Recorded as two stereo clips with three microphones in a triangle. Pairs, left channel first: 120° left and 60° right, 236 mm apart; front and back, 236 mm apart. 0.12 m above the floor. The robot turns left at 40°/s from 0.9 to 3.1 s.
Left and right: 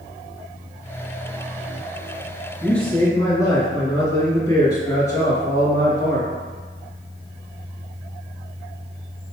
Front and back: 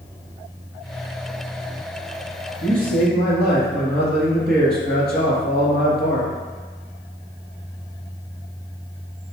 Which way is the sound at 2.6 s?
150° right.